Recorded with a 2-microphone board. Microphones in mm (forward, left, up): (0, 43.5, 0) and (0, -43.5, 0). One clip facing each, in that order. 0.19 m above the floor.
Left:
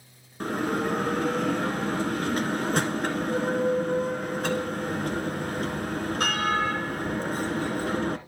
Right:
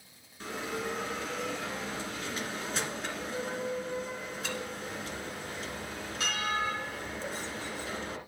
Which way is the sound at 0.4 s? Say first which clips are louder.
Left 9 dB; 50° left (ahead or behind).